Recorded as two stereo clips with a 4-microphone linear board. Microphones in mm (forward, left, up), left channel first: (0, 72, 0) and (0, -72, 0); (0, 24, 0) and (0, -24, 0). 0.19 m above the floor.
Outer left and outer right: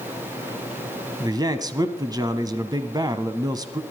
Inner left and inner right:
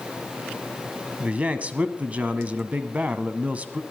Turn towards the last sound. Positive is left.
turn(degrees=-30)  # may be behind; listen again after turning